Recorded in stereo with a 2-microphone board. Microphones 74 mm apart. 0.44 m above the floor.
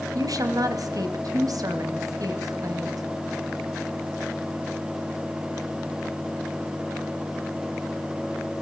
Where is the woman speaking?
60° right (ahead or behind), 3 m.